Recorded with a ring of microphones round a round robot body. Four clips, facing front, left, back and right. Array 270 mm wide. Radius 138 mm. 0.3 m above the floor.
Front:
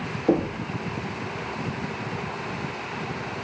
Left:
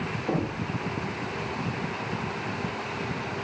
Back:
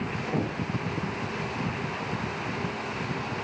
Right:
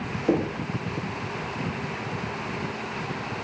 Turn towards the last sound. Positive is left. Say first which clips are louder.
# right 6 dB, front 9 dB
turn(degrees=-30)